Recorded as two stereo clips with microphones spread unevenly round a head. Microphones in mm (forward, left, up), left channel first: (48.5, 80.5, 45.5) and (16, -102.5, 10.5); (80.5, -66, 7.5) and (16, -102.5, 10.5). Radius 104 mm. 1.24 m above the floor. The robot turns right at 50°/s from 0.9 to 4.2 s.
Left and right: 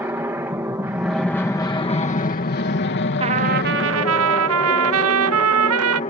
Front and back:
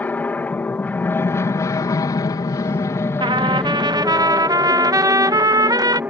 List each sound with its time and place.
0.0 s an aircraft: 30° right; by 6.1 s 135° left
3.2 s a trumpet: 170° right; by 6.0 s 120° right